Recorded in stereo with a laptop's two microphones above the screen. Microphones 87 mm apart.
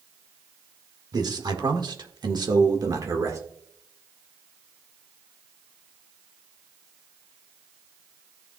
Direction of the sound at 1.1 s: 50° right (ahead or behind).